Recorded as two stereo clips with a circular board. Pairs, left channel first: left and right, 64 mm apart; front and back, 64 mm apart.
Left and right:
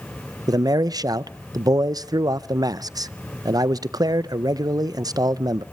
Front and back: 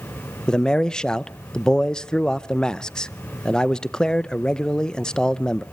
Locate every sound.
0.5 s a man speaking: 80° right, 0.5 m